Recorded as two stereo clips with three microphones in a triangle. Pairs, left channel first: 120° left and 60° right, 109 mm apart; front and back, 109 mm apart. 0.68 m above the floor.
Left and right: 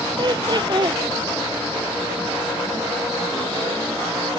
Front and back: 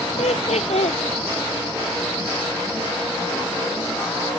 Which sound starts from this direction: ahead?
Laughter, at 0.2 s.